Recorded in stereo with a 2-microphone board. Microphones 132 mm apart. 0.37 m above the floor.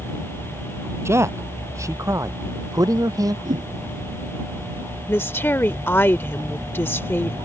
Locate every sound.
1.1 s a man speaking: 20° right (ahead or behind); by 3.4 s 30° right (ahead or behind)
3.5 s a whoosh: 80° right
5.1 s a woman speaking: 15° left (ahead or behind)